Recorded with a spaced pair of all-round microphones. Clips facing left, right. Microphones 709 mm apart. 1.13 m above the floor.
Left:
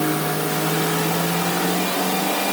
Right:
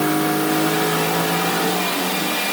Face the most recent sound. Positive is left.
No sound to turn to.